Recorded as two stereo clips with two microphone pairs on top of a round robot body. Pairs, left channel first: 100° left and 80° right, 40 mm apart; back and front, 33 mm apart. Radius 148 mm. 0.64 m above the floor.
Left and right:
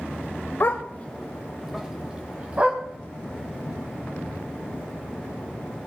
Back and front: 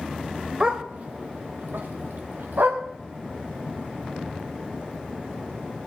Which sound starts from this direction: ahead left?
A dog barking, at 0.6 s.